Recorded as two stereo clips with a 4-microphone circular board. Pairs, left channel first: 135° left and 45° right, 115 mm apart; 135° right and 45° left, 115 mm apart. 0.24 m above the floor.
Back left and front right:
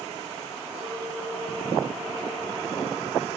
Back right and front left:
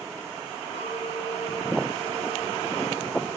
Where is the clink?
120° right, 4.5 m.